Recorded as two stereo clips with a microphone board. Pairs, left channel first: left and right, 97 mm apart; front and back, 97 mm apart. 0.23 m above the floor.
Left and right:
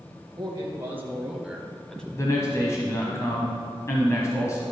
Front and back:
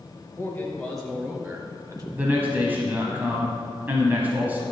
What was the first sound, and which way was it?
A man speaking, 55° right.